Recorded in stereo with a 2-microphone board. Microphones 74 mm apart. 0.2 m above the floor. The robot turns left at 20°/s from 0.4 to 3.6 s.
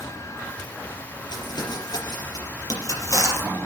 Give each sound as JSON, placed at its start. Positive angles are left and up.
{"t": 1.3, "sound": "crumpling", "side_deg": 75, "distance_m": 5.0}